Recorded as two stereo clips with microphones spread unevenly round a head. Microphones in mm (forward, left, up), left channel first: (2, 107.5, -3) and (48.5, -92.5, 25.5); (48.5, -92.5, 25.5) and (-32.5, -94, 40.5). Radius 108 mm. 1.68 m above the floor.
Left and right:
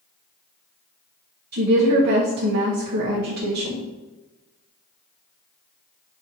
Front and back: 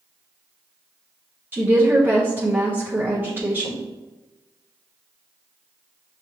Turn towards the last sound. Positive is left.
turn(degrees=-120)